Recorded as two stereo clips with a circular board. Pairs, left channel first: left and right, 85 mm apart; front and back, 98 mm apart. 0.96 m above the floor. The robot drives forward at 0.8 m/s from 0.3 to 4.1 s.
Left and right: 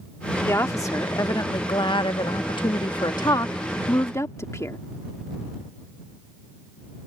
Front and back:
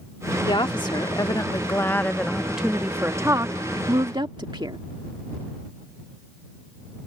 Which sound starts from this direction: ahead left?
A woman speaking, at 0.5 s.